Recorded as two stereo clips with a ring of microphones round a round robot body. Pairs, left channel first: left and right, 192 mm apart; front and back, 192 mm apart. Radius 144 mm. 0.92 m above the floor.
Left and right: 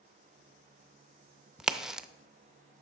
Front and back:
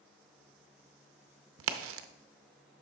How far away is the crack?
About 0.5 m.